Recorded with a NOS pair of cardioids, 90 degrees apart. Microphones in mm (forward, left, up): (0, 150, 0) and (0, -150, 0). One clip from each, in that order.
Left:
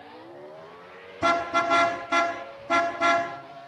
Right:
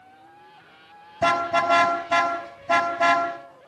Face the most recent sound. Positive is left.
turn(degrees=-60)